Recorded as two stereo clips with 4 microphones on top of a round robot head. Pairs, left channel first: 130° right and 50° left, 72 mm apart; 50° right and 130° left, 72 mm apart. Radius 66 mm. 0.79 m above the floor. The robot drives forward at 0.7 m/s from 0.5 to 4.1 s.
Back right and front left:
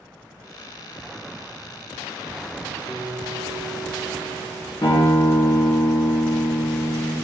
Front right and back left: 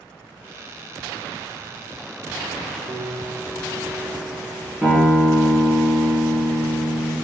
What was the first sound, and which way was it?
A piano, 155° left.